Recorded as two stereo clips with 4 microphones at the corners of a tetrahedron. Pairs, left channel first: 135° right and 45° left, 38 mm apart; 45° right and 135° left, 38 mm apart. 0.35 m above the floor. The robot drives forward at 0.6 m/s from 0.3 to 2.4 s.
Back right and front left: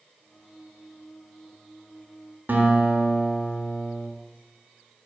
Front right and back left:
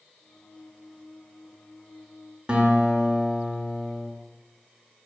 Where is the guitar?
75° left, 0.5 m.